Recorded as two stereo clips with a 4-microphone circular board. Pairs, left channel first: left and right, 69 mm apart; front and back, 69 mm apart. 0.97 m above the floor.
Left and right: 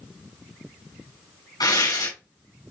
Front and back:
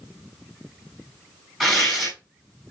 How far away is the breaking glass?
No breaking glass in this recording.